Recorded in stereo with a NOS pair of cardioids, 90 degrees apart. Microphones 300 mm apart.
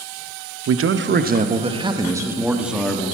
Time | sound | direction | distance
0.7 | a man speaking | 55° right | 0.7 m